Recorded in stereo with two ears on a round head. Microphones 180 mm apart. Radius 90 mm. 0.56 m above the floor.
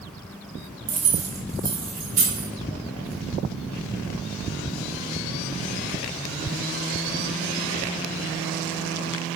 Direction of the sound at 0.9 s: 20° right (ahead or behind).